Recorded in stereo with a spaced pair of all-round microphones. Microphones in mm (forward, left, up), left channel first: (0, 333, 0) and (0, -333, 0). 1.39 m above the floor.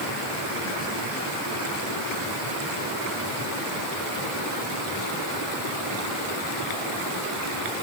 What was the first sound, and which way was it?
Only background noise.